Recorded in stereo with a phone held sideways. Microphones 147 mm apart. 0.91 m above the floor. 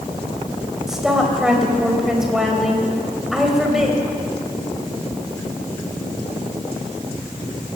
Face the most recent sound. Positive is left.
turn(degrees=-5)  # may be behind; listen again after turning